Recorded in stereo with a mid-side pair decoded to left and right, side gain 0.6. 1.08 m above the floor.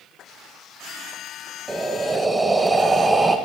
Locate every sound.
1.7 s breathing: 15° right, 0.5 m